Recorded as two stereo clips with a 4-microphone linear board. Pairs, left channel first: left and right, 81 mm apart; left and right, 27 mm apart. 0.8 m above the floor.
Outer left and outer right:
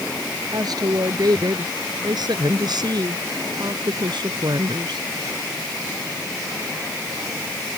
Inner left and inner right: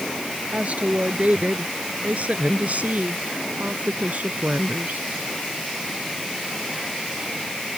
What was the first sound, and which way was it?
A woman speaking, 55° right (ahead or behind).